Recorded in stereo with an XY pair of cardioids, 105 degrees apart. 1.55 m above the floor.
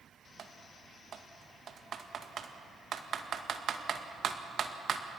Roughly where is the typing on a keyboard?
Ahead right.